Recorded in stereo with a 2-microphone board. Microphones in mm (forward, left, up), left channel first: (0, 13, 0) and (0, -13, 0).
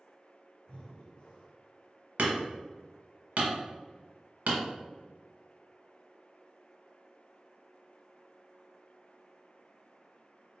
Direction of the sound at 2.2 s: 80° right.